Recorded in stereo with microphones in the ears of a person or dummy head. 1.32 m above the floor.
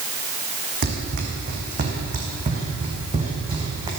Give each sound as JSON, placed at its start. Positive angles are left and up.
{"t": 0.8, "sound": "running footsteps", "side_deg": -50, "distance_m": 4.0}